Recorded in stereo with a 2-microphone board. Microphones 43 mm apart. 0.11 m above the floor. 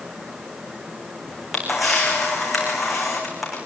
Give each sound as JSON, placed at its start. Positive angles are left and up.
{"t": 1.3, "sound": "a camera shutter", "side_deg": 0, "distance_m": 5.5}